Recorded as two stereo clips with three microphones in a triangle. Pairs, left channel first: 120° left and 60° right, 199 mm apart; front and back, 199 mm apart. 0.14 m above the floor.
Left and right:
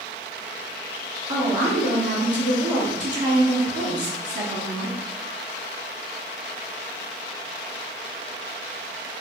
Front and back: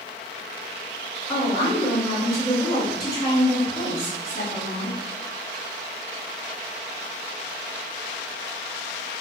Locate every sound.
1.3 s a woman speaking: 40° right, 1.7 m